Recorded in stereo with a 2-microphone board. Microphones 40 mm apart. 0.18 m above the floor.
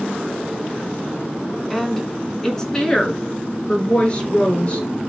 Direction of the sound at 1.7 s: 5° left (ahead or behind).